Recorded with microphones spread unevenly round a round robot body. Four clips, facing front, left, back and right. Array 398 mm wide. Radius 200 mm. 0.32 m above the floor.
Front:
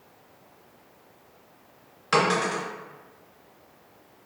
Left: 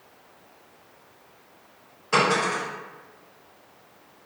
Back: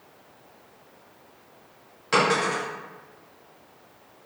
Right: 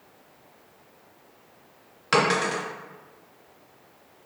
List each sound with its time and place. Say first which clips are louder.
2.1 s a dropped coin: even, back 1 dB; 85° right, 1.1 m